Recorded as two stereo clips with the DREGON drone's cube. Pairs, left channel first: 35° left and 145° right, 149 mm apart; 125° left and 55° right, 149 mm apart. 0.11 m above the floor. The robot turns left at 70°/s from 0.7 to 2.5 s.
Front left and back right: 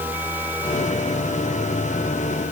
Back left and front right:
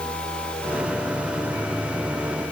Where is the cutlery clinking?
I don't hear cutlery clinking.